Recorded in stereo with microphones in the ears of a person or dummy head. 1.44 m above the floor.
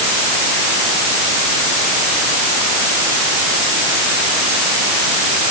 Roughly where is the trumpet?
No trumpet in this recording.